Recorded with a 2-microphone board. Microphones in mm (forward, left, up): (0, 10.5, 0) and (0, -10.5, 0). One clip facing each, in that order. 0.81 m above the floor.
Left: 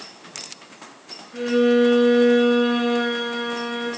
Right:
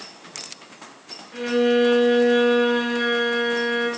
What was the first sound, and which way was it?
A violin, 30° right (ahead or behind).